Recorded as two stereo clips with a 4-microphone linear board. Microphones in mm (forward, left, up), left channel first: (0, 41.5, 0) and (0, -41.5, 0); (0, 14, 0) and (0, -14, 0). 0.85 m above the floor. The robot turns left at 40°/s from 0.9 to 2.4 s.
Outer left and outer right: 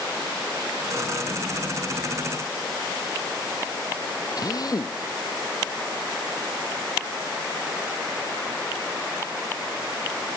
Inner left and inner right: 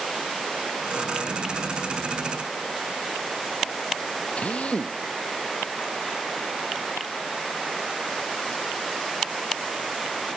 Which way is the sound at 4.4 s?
50° left (ahead or behind).